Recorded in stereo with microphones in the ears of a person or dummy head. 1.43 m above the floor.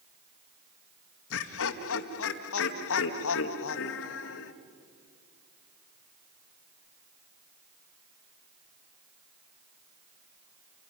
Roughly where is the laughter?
Left.